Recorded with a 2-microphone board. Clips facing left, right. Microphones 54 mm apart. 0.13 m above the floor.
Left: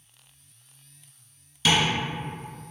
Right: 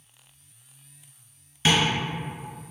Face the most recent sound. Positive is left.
turn(degrees=-35)  # may be behind; listen again after turning